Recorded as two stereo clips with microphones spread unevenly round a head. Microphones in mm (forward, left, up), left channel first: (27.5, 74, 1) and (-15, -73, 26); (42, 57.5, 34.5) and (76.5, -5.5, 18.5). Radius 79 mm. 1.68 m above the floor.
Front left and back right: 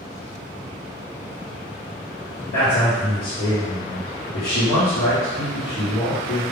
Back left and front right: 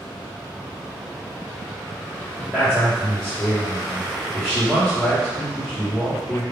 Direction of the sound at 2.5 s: 40° left.